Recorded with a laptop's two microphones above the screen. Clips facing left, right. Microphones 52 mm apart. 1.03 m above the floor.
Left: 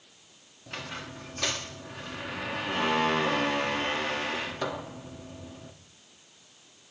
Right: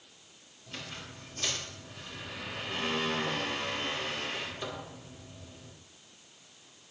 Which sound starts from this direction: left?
A squeak, at 0.7 s.